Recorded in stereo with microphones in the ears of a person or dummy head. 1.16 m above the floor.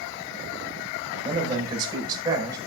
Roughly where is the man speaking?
Right.